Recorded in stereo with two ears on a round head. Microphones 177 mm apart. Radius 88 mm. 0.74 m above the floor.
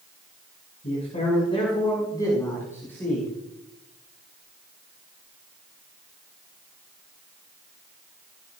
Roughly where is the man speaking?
Left.